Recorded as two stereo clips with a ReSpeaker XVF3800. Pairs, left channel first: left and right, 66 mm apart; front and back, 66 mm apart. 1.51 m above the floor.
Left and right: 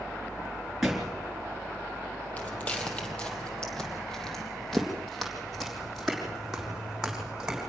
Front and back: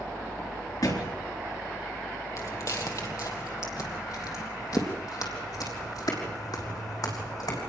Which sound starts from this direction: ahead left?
Footsteps, at 2.4 s.